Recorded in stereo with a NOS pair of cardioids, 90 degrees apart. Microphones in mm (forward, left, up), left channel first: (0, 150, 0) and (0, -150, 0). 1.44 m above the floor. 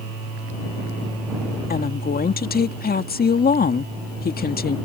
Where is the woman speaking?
30° left.